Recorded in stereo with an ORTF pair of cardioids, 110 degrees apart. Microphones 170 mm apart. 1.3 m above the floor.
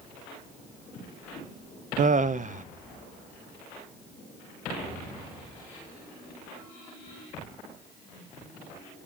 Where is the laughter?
50° right, 0.7 m.